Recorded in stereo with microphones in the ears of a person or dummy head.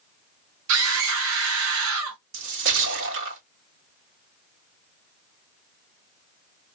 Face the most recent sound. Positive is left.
turn(degrees=-70)  # may be behind; listen again after turning